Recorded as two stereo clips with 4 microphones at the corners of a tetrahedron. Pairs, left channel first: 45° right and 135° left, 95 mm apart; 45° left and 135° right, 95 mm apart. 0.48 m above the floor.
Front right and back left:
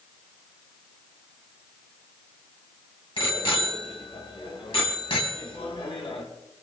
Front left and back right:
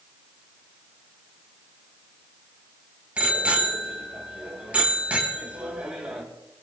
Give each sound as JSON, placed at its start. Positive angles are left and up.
{"t": 3.2, "sound": "a bicycle bell", "azimuth_deg": -60, "distance_m": 2.5}